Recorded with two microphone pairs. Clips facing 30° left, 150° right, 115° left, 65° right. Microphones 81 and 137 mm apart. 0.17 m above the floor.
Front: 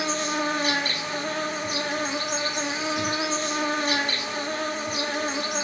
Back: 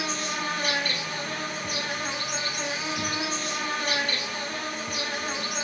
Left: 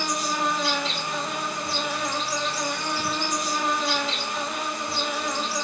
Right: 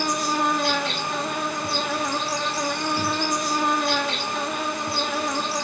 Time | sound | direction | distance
0.0 | an insect | 30° right | 1.0 m